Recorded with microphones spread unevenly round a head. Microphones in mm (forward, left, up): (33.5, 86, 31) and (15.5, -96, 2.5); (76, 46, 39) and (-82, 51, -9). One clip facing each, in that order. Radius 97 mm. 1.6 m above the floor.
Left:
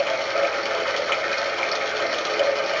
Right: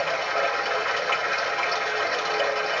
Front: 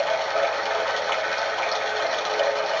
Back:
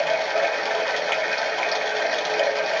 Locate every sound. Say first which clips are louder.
0.0 s running water: left 4 dB, back 1 dB; 95° left, 1.4 m